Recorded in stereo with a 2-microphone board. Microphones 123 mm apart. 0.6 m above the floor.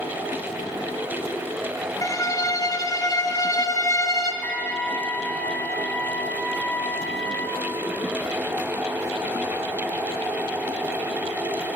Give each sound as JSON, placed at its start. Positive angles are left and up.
{"t": 2.0, "sound": "a violin", "side_deg": 30, "distance_m": 0.9}
{"t": 4.4, "sound": "a trumpet", "side_deg": 15, "distance_m": 0.6}